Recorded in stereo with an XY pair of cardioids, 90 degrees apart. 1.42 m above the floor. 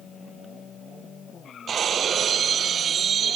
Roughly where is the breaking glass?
Ahead right.